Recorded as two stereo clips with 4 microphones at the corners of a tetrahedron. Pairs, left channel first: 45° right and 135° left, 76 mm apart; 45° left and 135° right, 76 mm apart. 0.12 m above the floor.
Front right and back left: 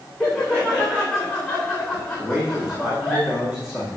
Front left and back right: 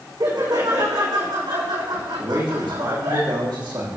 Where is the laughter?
130° right, 8 m.